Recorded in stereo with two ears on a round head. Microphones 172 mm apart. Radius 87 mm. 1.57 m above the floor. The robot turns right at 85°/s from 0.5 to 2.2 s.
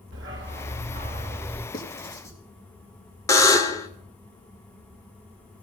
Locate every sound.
0.1 s a dog barking: 85° right, 2.5 m; by 1.6 s 15° left, 2.5 m
1.7 s writing: 55° left (ahead or behind), 2 m; by 2.4 s 15° left (ahead or behind), 2 m
3.3 s a buzzer: 15° left (ahead or behind), 0.7 m